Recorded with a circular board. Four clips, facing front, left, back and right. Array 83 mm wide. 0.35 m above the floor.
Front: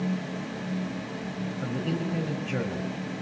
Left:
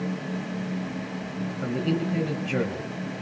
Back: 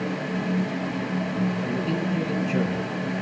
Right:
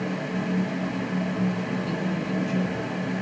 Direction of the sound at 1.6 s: 75° left.